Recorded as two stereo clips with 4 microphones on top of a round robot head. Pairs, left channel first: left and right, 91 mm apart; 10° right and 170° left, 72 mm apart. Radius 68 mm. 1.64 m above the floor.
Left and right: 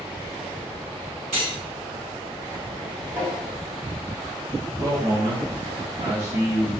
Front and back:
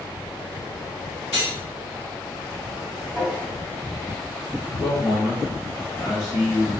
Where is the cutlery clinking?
70° right, 1.2 m.